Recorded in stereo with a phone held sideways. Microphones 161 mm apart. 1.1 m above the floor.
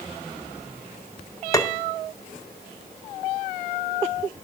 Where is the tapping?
20° left (ahead or behind), 0.7 m.